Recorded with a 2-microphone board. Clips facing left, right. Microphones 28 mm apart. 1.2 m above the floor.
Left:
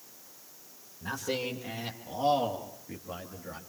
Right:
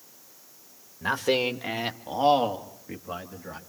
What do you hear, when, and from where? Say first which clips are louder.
1.0 s a man speaking: right 9 dB; 70° right (ahead or behind), 1.6 m; by 3.6 s 20° right (ahead or behind), 2.5 m